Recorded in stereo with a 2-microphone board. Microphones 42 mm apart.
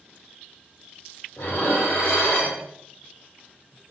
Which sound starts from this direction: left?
Dishes clattering, at 1.4 s.